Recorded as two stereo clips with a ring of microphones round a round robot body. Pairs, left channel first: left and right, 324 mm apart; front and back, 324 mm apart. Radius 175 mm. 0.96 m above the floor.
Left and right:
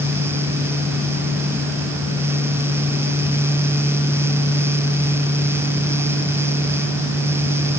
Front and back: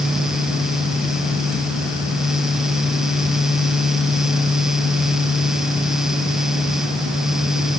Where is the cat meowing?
No cat meowing in this recording.